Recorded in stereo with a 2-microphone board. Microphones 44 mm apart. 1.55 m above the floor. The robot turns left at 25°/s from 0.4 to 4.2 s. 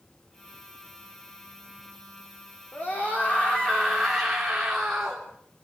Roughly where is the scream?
Ahead left.